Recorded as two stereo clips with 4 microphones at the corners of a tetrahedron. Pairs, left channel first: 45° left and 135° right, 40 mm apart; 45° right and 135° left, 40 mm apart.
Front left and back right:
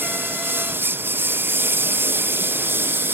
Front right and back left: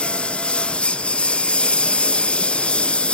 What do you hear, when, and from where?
0.0 s a lawn mower: 110° right